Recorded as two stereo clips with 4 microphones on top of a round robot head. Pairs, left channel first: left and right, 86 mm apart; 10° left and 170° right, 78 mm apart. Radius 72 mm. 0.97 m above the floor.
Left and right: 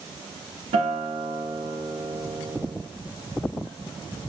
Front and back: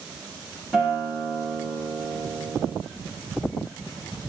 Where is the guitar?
80° right, 1.0 m.